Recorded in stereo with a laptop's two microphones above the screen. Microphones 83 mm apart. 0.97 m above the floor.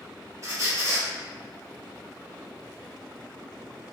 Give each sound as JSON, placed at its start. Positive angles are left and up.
{"t": 0.4, "sound": "a squeak", "side_deg": -40, "distance_m": 1.2}